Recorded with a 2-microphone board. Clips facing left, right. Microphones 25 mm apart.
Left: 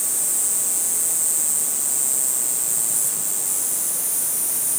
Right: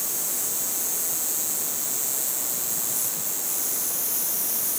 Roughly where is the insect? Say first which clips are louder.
Left 4 dB; right.